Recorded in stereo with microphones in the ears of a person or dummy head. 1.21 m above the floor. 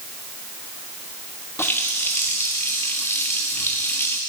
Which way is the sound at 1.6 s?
10° left (ahead or behind).